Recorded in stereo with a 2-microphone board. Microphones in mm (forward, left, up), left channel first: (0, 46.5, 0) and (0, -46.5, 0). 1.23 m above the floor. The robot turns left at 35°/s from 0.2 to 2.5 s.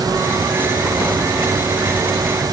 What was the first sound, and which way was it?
Only background noise.